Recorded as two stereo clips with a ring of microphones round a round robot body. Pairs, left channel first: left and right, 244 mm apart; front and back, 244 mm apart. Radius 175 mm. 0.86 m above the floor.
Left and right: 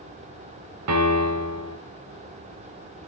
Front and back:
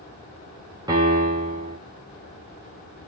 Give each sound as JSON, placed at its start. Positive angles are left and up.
{"t": 0.9, "sound": "a piano", "azimuth_deg": -100, "distance_m": 3.0}